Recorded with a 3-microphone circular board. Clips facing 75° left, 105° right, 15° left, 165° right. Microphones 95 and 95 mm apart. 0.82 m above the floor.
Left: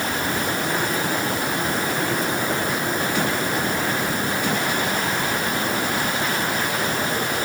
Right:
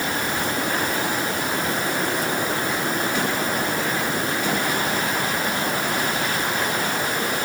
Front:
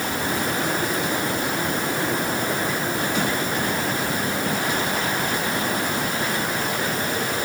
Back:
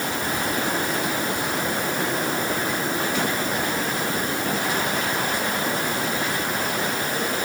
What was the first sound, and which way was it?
Only background noise.